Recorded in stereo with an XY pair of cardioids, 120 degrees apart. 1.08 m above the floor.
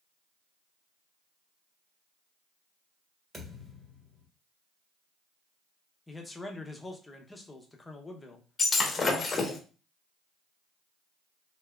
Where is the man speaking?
15° left, 0.7 m.